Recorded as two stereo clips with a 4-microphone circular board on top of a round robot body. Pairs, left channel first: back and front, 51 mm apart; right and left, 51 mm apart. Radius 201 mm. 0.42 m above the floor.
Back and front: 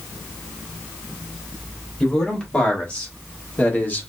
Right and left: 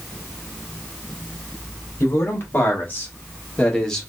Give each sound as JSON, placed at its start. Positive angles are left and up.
{"t": 2.0, "sound": "a man speaking", "azimuth_deg": -115, "distance_m": 2.0}